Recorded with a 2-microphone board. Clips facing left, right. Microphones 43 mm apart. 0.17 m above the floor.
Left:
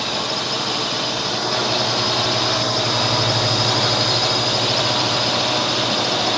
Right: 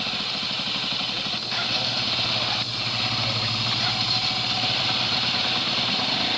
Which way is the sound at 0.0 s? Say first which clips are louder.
Left 6 dB; 65° left (ahead or behind).